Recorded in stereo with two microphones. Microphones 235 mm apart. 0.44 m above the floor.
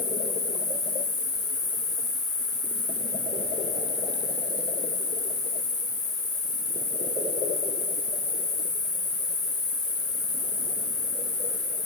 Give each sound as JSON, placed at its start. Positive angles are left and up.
{"t": 0.0, "sound": "an insect", "side_deg": -50, "distance_m": 7.0}